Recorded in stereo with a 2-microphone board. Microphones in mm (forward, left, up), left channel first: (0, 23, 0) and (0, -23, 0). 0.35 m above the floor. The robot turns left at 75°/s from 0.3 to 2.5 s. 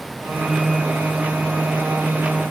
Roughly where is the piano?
I don't hear a piano.